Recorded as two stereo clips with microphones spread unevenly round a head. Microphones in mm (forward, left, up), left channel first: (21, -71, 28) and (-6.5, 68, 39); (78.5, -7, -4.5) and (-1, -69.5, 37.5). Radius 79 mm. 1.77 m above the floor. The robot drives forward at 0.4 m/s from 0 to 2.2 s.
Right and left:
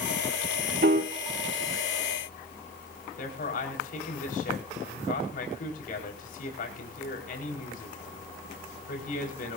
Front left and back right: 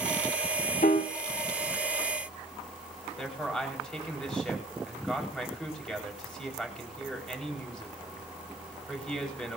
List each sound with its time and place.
0.8 s a piano: 75° left, 2 m; by 1.1 s 80° left, 2.0 m
3.2 s a man speaking: 45° right, 5 m